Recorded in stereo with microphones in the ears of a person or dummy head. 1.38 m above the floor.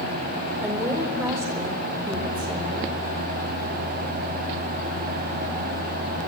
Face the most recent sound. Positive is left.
turn(degrees=-25)  # may be behind; listen again after turning